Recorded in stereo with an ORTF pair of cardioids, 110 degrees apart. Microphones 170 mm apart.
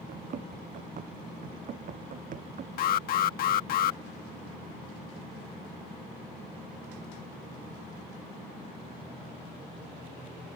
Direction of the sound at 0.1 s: 50° right.